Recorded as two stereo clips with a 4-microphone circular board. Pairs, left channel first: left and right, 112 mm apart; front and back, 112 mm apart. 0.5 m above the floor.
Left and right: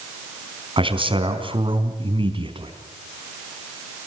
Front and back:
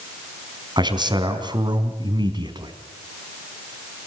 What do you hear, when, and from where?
0.8 s a man speaking: 130° right, 3.5 m